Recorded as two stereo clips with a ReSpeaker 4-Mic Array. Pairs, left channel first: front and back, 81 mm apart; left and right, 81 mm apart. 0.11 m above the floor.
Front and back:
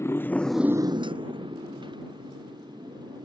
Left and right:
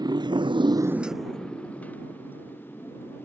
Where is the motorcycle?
55° right; by 3.2 s 155° left.